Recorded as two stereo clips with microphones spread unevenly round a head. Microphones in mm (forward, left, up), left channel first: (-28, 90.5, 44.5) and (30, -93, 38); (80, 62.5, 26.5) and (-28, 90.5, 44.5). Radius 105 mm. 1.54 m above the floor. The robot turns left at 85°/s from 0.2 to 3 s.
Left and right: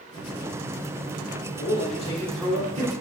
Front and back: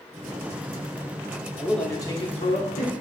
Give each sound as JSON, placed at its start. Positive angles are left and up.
{"t": 1.6, "sound": "a man speaking", "azimuth_deg": 85, "distance_m": 1.0}